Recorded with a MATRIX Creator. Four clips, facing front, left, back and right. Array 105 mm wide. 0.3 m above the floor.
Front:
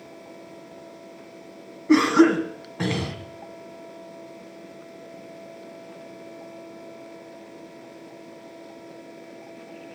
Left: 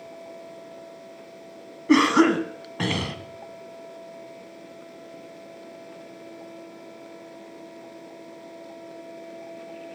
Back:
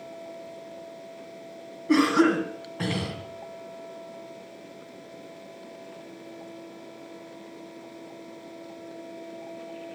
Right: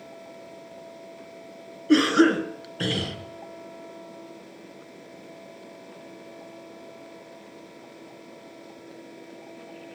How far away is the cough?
About 2.5 m.